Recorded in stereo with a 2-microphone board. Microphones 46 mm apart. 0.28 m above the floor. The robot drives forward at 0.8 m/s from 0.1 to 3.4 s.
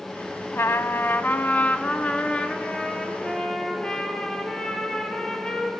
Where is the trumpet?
65° left (ahead or behind), 0.6 m; by 5.7 s 15° left (ahead or behind), 2.5 m.